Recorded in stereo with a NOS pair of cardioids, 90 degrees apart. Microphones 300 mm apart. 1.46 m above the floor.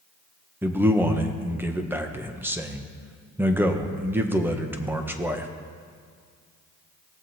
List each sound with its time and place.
0.6 s a man speaking: 5° right, 1.4 m